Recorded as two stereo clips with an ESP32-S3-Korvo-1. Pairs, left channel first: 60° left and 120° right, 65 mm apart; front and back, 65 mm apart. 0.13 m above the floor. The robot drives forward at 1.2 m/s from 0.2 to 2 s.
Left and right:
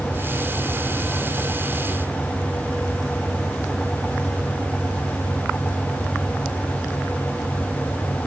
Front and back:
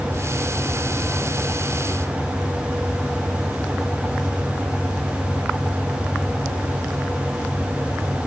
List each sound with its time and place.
Only background noise.